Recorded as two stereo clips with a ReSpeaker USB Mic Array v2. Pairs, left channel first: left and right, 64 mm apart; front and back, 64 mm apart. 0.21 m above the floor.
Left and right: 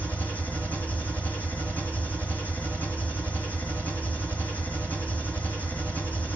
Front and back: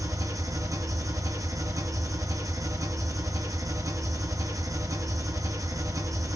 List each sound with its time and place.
0.0 s an engine running: 155° left, 3 m